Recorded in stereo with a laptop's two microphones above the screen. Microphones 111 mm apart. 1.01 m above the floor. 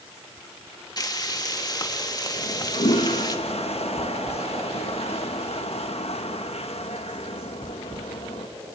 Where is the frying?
35° left (ahead or behind), 1.9 m.